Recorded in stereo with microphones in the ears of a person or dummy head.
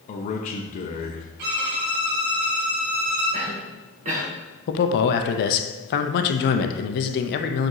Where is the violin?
55° right (ahead or behind), 3 m.